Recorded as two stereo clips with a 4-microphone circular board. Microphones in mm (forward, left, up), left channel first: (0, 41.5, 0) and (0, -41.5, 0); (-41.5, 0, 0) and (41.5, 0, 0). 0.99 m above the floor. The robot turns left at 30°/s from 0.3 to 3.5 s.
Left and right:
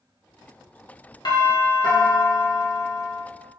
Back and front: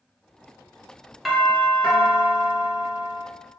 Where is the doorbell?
90° left, 1.0 m; by 3.2 s 30° left, 1.0 m.